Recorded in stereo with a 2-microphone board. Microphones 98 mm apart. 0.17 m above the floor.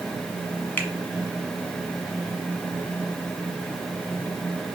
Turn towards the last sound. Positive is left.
turn(degrees=20)  # may be behind; listen again after turning